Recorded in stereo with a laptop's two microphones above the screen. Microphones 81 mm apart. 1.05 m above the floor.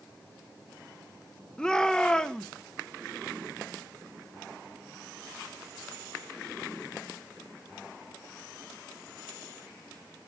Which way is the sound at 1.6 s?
10° left (ahead or behind).